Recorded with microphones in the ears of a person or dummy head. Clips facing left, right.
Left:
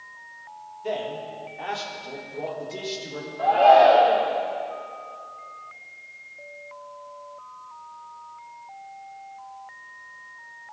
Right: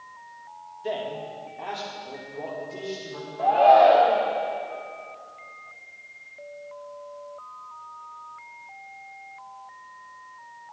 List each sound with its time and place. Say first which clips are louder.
0.8 s a man speaking: left 1 dB; 20° right (ahead or behind), 3 m; by 3.3 s 20° left (ahead or behind), 4.5 m
3.4 s a shout: left 1 dB; 15° left (ahead or behind), 1.2 m